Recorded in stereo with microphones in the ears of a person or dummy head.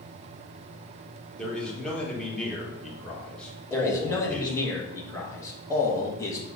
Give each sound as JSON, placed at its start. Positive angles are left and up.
{"t": 1.4, "sound": "a man speaking", "side_deg": 5, "distance_m": 1.1}
{"t": 3.7, "sound": "a man speaking", "side_deg": 15, "distance_m": 1.1}